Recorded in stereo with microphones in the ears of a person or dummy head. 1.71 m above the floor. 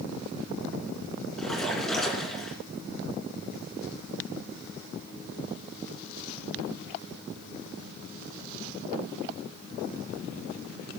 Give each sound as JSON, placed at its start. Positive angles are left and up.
{"t": 1.4, "sound": "a splash", "side_deg": 0, "distance_m": 2.5}